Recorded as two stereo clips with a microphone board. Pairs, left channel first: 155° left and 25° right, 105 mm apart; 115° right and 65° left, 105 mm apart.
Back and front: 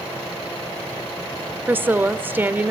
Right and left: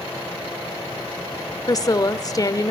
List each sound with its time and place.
1.7 s a woman speaking: 85° right, 1.1 m